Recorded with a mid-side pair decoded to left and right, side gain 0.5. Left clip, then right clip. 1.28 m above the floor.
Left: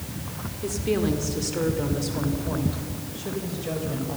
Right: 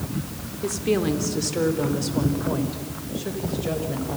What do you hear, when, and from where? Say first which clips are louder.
0.6 s a woman speaking: right 2 dB; 20° right, 3 m